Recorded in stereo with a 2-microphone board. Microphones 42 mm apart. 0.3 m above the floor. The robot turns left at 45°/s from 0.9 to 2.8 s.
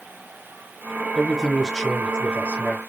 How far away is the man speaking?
About 1.2 m.